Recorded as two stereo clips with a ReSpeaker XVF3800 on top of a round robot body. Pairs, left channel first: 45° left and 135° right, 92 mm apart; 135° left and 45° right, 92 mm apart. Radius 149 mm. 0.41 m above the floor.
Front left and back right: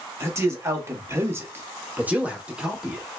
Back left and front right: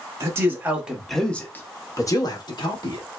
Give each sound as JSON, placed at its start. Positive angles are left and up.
{"t": 0.2, "sound": "a man speaking", "azimuth_deg": -90, "distance_m": 1.0}